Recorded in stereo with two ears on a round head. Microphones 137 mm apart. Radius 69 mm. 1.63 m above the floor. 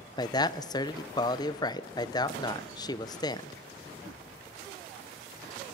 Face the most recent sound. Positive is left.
turn(degrees=25)  # may be behind; listen again after turning